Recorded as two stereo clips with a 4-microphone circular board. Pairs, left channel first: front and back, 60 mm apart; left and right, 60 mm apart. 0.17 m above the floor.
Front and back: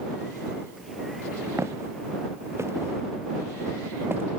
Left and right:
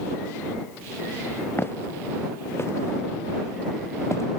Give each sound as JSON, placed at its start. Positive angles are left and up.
{"t": 1.6, "sound": "footsteps", "azimuth_deg": 140}